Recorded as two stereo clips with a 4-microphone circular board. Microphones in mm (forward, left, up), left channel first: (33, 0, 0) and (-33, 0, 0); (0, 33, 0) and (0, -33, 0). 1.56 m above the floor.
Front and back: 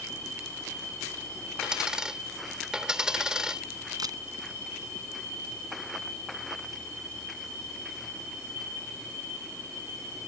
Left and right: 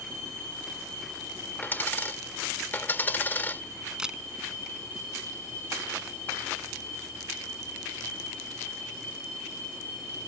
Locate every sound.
1.6 s a dropped coin: 110° left
4.0 s a camera shutter: 170° right